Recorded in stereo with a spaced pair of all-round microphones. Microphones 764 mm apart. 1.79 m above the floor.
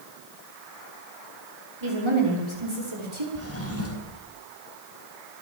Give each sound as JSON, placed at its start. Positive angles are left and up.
{"t": 1.8, "sound": "a woman speaking", "side_deg": -40, "distance_m": 6.5}
{"t": 3.4, "sound": "a drawer", "side_deg": 20, "distance_m": 4.5}